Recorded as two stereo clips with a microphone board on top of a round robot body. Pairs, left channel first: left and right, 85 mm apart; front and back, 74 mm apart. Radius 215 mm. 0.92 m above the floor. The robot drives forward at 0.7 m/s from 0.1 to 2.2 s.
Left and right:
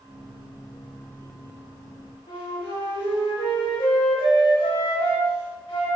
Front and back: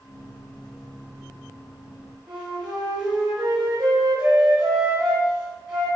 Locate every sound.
2.3 s a flute: 135° left, 0.8 m